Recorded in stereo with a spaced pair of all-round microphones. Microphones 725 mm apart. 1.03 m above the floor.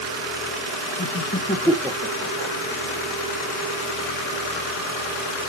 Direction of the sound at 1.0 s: 25° left (ahead or behind).